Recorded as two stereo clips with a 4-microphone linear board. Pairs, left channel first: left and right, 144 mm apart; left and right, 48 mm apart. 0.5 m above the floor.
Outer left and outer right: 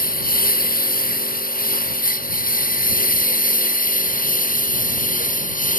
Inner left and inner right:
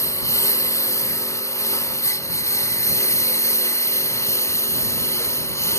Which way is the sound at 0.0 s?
85° left.